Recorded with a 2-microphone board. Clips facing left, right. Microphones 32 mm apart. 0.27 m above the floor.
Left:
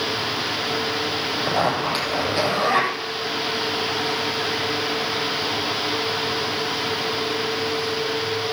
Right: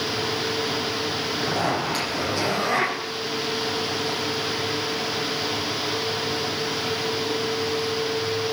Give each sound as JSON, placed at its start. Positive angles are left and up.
{"t": 1.4, "sound": "a zipper", "side_deg": 35, "distance_m": 8.5}